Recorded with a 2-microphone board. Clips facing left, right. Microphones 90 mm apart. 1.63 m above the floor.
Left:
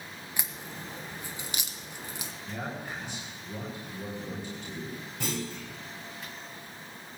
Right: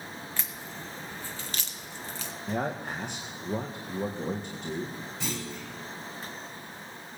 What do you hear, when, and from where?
0.4 s a crack: 15° left (ahead or behind), 1.3 m
2.5 s a man speaking: 55° right (ahead or behind), 1.7 m
5.2 s a clunk: 50° left (ahead or behind), 9.5 m